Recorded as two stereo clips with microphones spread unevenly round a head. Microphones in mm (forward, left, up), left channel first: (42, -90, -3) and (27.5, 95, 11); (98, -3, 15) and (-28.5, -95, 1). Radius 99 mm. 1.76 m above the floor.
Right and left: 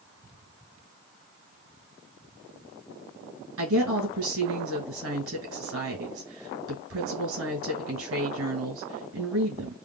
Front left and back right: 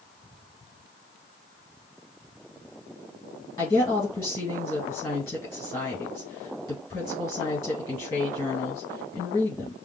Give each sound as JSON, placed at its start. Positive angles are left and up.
{"t": 3.6, "sound": "a woman speaking", "azimuth_deg": 110, "distance_m": 2.0}